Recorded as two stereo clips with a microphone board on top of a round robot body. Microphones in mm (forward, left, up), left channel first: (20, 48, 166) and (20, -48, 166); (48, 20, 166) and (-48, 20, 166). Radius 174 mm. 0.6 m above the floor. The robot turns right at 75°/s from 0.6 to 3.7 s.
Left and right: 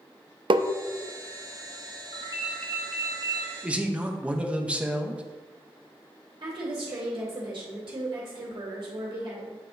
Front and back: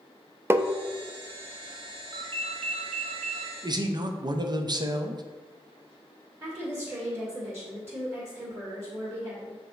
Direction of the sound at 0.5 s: 115° right.